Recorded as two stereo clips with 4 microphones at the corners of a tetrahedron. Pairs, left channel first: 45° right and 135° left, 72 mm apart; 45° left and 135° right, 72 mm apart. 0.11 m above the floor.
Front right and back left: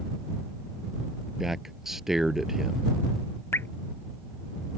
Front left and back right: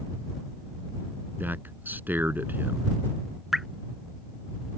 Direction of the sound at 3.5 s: 55° right.